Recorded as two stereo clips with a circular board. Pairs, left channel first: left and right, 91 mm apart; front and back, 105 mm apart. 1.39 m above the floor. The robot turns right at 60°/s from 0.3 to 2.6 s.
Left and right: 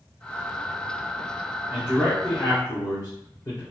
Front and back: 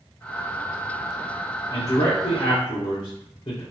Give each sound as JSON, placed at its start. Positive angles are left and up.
{"t": 1.7, "sound": "a man speaking", "azimuth_deg": -15, "distance_m": 0.8}